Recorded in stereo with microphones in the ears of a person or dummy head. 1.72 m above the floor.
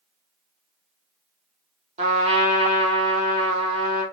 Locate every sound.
2.0 s a trumpet: 35° right (ahead or behind), 0.9 m